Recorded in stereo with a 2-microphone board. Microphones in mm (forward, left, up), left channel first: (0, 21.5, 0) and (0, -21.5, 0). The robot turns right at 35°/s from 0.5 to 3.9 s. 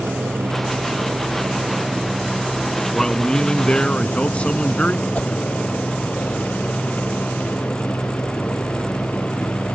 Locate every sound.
0.0 s a helicopter: 70° right; by 9.8 s 50° left
2.9 s a man speaking: 30° left; by 5.0 s 65° left
5.2 s a whoosh: 40° left (ahead or behind)